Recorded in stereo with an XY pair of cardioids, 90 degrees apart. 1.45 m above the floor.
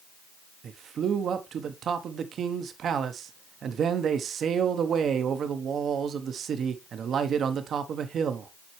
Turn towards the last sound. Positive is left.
turn(degrees=-65)